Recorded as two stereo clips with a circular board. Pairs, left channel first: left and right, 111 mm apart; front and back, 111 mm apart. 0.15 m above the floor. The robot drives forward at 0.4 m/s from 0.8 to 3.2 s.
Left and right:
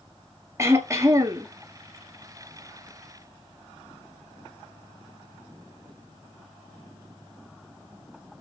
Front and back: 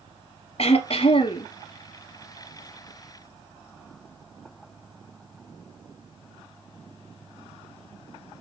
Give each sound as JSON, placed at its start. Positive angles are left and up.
{"t": 0.6, "sound": "throat clearing", "azimuth_deg": -25, "distance_m": 1.2}